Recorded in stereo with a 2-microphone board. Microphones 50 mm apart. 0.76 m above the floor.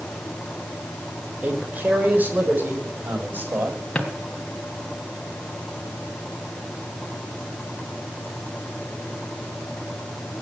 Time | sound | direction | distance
1.4 | a man speaking | 30° right (ahead or behind) | 3.5 m
4.0 | a drawer | 20° left (ahead or behind) | 3 m